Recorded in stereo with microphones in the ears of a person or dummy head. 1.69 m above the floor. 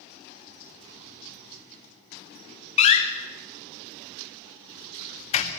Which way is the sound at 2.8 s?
40° left (ahead or behind).